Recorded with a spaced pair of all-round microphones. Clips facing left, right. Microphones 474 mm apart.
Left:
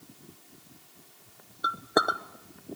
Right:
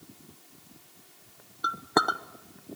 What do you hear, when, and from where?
1.6 s a clink: 15° right (ahead or behind), 0.6 m